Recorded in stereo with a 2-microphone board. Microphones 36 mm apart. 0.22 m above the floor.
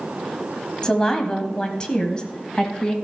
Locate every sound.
0.8 s a woman speaking: 20° left (ahead or behind), 1.3 m; by 3.0 s 25° left (ahead or behind), 1.4 m